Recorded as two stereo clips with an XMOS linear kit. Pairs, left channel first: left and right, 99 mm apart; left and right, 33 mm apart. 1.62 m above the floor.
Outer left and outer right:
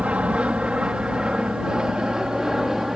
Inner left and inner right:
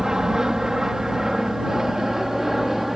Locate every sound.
0.0 s an aircraft: 15° right (ahead or behind); by 3.0 s 5° right (ahead or behind)